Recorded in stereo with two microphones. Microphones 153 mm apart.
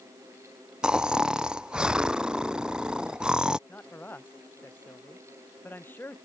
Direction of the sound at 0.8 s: 5° right (ahead or behind).